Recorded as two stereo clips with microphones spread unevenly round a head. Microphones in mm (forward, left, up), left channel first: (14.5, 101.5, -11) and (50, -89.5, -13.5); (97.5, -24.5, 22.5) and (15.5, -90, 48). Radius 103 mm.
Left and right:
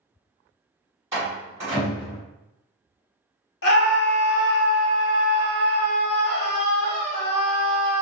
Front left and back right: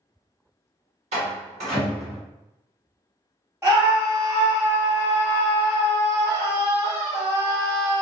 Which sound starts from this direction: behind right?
A door slam, at 1.1 s.